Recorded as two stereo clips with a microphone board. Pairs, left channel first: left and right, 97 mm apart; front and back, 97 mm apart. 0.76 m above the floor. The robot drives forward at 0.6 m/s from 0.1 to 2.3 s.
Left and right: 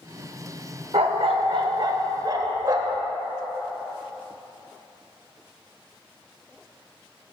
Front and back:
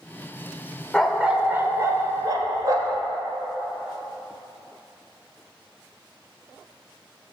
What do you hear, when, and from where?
0.9 s a dog barking: 85° right, 0.8 m; by 3.0 s 135° right, 1.1 m